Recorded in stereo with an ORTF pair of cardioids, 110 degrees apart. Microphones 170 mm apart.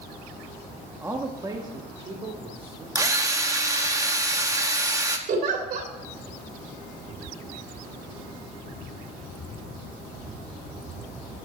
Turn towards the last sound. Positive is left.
turn(degrees=-55)